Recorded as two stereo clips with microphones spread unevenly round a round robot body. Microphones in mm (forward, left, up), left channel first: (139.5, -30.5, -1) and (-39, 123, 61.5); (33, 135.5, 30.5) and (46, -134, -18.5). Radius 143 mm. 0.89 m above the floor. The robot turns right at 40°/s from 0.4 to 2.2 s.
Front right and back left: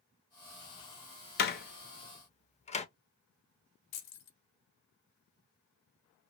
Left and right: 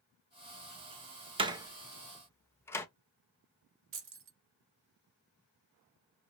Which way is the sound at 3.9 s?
45° right.